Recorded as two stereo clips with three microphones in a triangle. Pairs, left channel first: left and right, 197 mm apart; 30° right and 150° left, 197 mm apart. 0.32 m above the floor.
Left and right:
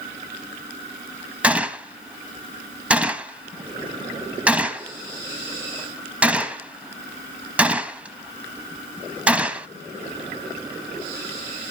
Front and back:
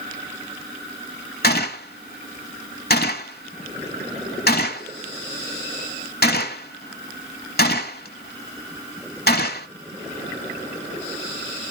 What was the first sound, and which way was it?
A gunshot, 5° right.